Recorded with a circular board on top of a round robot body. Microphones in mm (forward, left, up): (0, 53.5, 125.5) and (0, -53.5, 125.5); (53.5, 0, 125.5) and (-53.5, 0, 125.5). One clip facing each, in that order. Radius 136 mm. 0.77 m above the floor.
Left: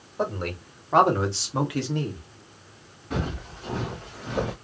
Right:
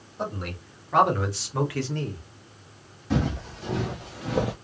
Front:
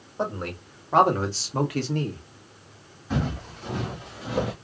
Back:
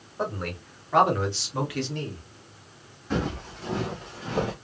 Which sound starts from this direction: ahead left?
A man speaking, at 0.2 s.